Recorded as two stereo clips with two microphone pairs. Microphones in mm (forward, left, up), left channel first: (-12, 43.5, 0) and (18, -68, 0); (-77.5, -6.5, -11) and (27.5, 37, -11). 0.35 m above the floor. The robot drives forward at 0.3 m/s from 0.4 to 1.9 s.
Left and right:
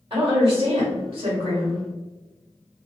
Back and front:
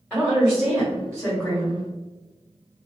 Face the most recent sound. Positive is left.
turn(degrees=-105)